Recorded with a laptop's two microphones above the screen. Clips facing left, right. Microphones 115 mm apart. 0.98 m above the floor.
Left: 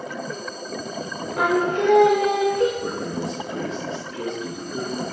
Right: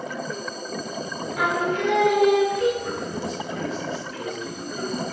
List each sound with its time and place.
1.4 s singing: 45° left (ahead or behind), 1.4 m
2.8 s a man speaking: 50° left (ahead or behind), 1.3 m